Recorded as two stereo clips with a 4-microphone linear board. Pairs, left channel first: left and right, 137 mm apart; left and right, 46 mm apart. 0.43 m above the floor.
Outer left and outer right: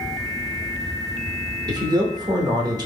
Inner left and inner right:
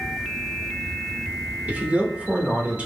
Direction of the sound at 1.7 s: 30° right (ahead or behind).